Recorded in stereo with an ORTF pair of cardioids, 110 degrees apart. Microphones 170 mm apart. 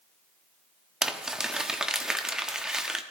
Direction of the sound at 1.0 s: 5° right.